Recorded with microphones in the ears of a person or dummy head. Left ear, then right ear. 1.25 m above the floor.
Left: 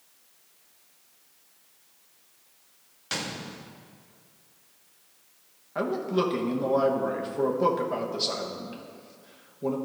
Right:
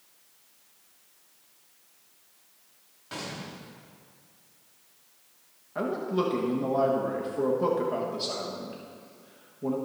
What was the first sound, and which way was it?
A gunshot, 65° left (ahead or behind).